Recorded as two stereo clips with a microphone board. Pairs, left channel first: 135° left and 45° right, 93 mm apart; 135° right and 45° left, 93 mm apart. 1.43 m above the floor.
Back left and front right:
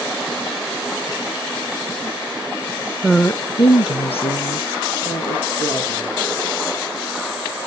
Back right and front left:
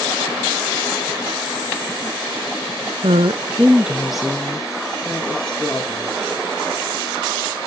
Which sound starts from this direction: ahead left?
A woman speaking, at 3.0 s.